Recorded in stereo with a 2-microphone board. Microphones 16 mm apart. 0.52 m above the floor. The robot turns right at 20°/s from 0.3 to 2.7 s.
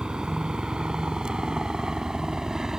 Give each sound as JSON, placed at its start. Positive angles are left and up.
{"t": 0.0, "sound": "a helicopter", "side_deg": -75}